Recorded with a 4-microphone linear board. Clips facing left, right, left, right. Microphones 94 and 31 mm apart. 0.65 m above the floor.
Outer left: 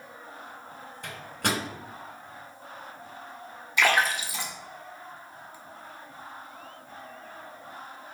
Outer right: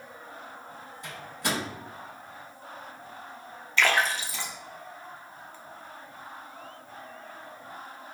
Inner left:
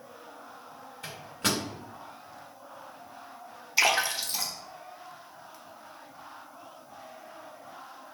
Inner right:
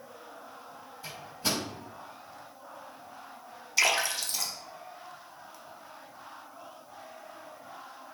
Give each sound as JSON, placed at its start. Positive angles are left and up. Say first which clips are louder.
{"t": 1.0, "sound": "a microwave", "louder": "outer left 2 dB, inner left 3 dB", "side_deg": 70, "distance_m": 2.0}
{"t": 3.8, "sound": "a splash", "louder": "outer left 1 dB, inner left 2 dB", "side_deg": 15, "distance_m": 0.8}